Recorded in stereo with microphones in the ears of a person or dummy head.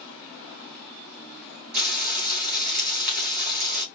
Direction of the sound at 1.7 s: 45° right (ahead or behind).